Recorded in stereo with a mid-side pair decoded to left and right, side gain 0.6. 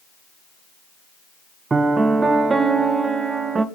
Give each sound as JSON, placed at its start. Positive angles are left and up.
{"t": 1.7, "sound": "a piano", "azimuth_deg": -25, "distance_m": 1.3}